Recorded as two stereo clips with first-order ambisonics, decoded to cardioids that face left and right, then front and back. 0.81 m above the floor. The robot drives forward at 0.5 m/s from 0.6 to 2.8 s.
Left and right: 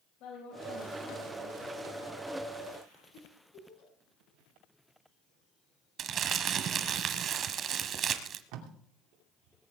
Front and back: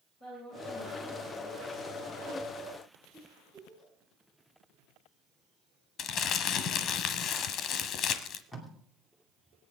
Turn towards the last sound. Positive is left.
turn(degrees=-80)